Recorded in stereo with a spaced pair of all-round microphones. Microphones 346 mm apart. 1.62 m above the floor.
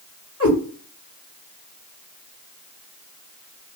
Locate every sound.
0.4 s a cat meowing: 40° left (ahead or behind), 2 m